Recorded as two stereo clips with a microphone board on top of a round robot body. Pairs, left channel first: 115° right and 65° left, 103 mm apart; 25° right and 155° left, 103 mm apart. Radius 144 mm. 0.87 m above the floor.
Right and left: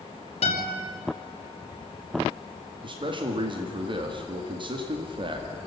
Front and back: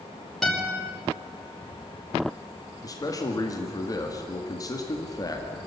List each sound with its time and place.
0.4 s a guitar: 110° right, 5 m
2.8 s a man speaking: 30° left, 1.8 m